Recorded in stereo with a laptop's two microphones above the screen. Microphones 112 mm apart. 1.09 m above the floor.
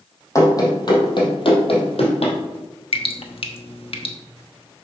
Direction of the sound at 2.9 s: 60° left (ahead or behind).